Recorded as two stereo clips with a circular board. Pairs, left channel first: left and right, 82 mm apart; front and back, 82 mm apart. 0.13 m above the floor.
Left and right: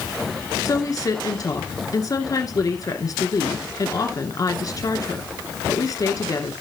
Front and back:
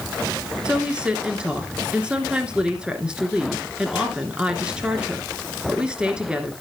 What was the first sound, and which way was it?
A woman speaking, 105° left.